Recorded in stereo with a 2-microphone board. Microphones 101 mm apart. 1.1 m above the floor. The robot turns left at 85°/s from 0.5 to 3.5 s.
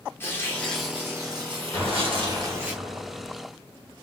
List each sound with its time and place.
0.2 s tearing paper: 25° left, 1.2 m; by 2.7 s 165° right, 1.2 m
1.7 s an explosion: 15° left, 2.0 m; by 3.3 s 120° right, 2.0 m